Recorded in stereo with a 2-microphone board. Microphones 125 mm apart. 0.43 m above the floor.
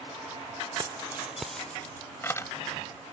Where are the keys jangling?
35° right (ahead or behind); by 2.5 s 25° left (ahead or behind).